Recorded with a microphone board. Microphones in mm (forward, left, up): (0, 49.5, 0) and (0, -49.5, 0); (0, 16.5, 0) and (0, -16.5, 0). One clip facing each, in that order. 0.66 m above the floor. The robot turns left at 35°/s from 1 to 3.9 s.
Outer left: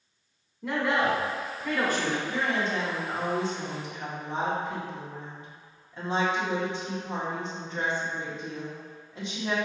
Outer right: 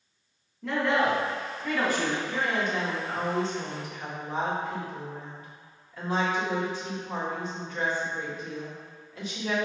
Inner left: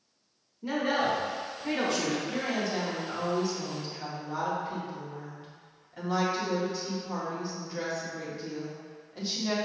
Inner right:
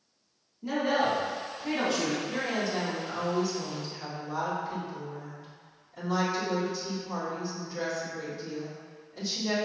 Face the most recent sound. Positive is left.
turn(degrees=150)